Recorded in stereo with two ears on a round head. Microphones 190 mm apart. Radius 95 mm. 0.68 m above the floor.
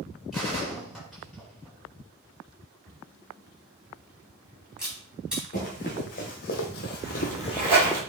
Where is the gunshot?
Centre (ahead or behind), 3.5 m.